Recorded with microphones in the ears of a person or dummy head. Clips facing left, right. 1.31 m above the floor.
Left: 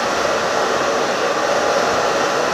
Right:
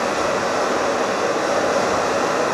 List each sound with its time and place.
0.0 s running water: 30° left (ahead or behind), 1.4 m